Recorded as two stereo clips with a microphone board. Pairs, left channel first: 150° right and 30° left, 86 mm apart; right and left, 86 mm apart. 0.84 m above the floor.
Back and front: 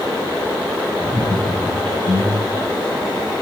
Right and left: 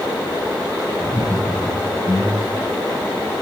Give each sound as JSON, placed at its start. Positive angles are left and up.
{"t": 1.0, "sound": "laughter", "azimuth_deg": 20, "distance_m": 4.5}